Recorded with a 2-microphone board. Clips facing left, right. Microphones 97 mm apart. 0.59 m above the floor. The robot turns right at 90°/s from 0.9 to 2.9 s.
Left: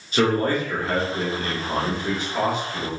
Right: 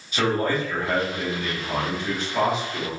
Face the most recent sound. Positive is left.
turn(degrees=-140)